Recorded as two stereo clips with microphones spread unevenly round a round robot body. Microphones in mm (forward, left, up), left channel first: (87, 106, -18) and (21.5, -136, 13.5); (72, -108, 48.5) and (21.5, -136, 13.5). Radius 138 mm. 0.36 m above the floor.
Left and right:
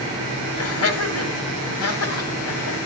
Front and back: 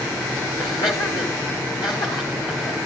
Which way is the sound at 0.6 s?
80° left.